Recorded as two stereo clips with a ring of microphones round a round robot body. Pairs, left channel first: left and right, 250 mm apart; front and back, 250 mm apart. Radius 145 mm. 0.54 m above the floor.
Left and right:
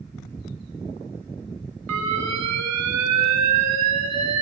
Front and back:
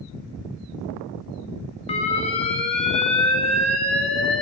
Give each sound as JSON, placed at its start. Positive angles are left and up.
{"t": 1.9, "sound": "an alarm", "azimuth_deg": -65, "distance_m": 4.5}